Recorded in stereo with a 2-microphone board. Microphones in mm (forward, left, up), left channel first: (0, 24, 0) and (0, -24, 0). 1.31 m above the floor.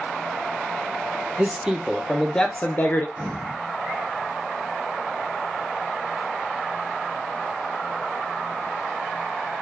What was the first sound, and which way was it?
A man speaking, 30° right (ahead or behind).